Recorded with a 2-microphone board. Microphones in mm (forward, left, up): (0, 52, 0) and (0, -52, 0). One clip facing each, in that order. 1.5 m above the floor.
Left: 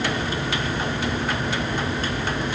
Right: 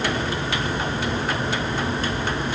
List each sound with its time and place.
Only background noise.